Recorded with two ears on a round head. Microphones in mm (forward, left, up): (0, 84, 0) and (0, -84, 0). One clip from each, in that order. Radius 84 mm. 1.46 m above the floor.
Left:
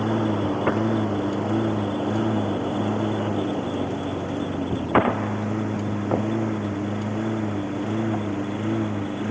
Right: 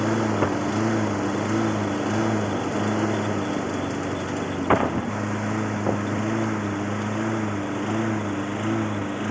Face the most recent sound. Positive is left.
turn(degrees=-35)  # may be behind; listen again after turning